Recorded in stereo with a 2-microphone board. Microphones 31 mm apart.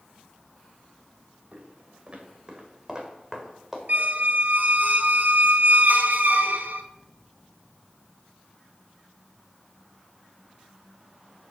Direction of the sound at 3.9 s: 65° right (ahead or behind).